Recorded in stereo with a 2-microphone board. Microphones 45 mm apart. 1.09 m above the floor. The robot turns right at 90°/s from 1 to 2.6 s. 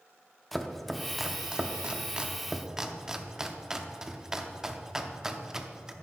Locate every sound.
0.5 s chopping: centre (ahead or behind), 0.6 m; by 5.9 s 15° right (ahead or behind), 0.6 m